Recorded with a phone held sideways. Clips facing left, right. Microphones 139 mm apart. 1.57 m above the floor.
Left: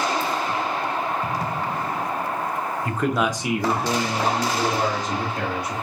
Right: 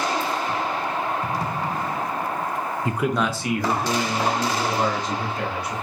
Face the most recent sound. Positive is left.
turn(degrees=50)  # may be behind; listen again after turning